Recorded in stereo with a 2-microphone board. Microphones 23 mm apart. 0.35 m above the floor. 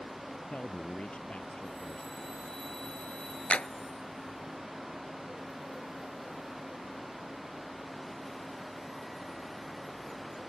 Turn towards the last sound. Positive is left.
turn(degrees=70)  # may be behind; listen again after turning